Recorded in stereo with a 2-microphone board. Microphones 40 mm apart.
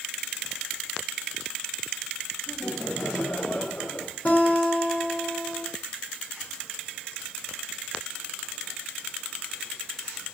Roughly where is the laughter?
Left.